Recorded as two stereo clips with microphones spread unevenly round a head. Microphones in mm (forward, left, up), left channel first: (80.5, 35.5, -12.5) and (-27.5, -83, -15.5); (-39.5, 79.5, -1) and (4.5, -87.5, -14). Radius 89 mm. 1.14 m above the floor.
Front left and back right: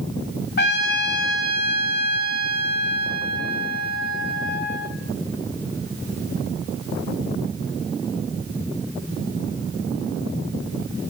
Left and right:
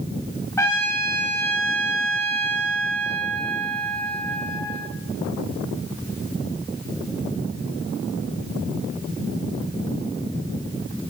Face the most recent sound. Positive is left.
turn(degrees=30)